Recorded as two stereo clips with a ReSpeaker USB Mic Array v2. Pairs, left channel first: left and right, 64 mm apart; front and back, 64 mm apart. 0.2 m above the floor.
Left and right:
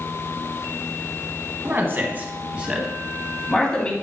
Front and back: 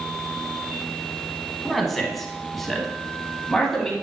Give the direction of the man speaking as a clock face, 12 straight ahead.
3 o'clock.